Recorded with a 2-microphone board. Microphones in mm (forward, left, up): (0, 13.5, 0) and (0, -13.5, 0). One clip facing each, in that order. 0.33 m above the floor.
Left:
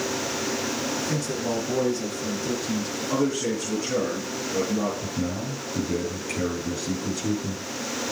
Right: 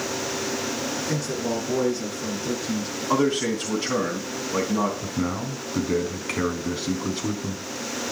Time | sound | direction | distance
1.0 | a man speaking | 15° right (ahead or behind) | 3.5 m
3.1 | a man speaking | 65° right (ahead or behind) | 3 m
5.0 | a man speaking | 50° right (ahead or behind) | 3.5 m